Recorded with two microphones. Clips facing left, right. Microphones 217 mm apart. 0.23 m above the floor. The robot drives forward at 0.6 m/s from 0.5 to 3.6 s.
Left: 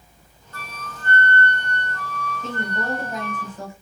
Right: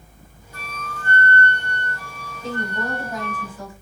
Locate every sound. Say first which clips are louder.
0.5 s a flute: right 3 dB; 15° right (ahead or behind), 0.7 m; by 3.4 s 5° right (ahead or behind), 2.5 m
2.4 s a woman speaking: right 2 dB; 25° left (ahead or behind), 1.1 m